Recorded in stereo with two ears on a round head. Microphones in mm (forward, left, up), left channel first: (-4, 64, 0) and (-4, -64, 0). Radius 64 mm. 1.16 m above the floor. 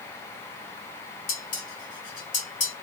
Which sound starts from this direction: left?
Dishes clattering, at 1.3 s.